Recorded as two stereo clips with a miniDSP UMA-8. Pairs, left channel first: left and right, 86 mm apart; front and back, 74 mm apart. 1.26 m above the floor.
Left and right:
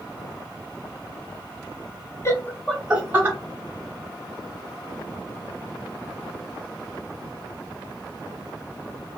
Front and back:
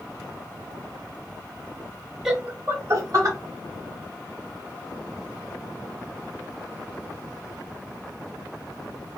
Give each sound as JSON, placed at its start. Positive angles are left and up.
{"t": 2.2, "sound": "laughter", "azimuth_deg": 100, "distance_m": 0.6}